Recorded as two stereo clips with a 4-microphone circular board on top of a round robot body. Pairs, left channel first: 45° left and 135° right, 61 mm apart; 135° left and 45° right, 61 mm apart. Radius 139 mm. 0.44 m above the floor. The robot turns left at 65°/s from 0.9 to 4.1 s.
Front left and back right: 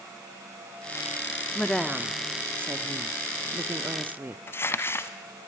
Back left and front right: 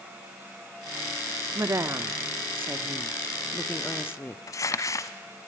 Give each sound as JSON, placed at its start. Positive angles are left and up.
{"t": 1.6, "sound": "a woman speaking", "azimuth_deg": -20, "distance_m": 1.0}
{"t": 4.5, "sound": "crumpling", "azimuth_deg": 95, "distance_m": 1.0}